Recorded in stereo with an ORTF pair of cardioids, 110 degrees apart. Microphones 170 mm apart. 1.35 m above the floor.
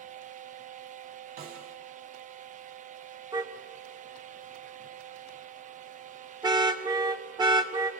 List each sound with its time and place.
0.0 s a fan: 50° right, 1.0 m
1.4 s a snare drum: 65° right, 3.5 m
3.3 s a car horn: 25° right, 2 m